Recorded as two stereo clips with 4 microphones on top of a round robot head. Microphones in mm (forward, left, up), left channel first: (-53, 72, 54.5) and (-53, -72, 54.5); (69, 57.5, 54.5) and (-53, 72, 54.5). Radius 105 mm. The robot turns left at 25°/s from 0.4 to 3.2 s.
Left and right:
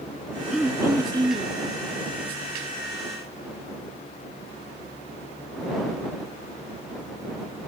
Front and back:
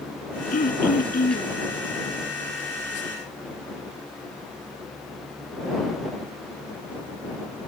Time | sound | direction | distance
0.5 | throat clearing | straight ahead | ?